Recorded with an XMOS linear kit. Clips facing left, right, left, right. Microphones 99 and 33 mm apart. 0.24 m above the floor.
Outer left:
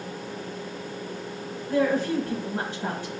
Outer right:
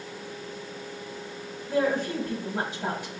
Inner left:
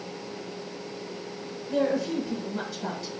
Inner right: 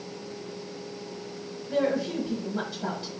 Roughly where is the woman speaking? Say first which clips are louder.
Outer left 2 dB, inner left 1 dB; centre.